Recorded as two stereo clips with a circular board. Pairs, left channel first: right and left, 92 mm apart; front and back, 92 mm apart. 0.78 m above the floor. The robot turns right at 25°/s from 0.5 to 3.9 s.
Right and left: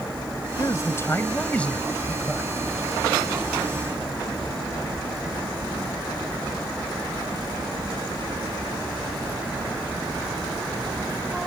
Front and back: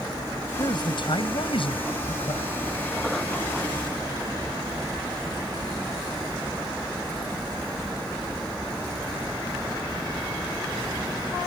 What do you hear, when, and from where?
0.6 s a man speaking: 40° right; by 2.5 s 10° left